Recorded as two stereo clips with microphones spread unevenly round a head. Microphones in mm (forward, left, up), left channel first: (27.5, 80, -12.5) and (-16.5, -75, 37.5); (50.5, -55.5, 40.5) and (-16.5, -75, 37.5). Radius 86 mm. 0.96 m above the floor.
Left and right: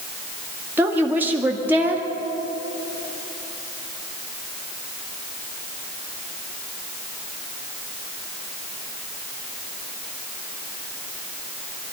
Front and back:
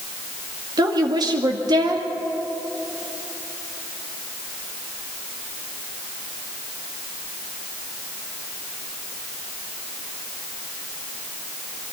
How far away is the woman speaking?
About 2.0 m.